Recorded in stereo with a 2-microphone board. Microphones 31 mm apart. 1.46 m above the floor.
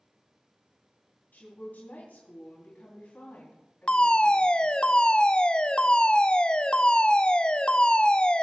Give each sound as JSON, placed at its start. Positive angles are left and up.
{"t": 1.3, "sound": "a woman speaking", "side_deg": 60, "distance_m": 3.0}
{"t": 3.9, "sound": "a fire alarm", "side_deg": 30, "distance_m": 0.7}